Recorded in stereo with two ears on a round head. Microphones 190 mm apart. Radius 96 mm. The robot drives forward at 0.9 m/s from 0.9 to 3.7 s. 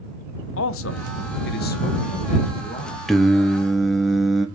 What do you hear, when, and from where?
0.6 s a man speaking: 70° left (ahead or behind), 1.0 m; by 3.0 s 25° left (ahead or behind), 2 m
3.1 s singing: centre (ahead or behind), 1.0 m